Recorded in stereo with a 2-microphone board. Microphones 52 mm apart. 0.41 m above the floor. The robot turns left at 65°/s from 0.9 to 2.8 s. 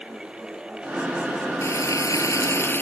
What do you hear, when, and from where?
1.6 s frying: 120° left; by 2.8 s 45° left